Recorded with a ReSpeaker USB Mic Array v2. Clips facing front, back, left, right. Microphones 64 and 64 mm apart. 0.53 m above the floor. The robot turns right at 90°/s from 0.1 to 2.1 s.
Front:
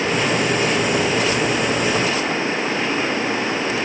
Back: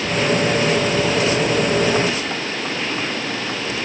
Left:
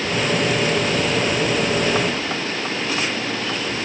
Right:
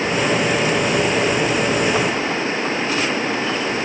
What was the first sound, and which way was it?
Only background noise.